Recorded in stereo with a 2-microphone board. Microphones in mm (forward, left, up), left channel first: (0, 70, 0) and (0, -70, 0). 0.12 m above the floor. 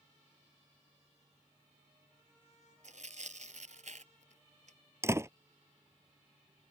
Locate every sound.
2.8 s tearing paper: 65° right (ahead or behind)
5.0 s a door slam: 20° right (ahead or behind)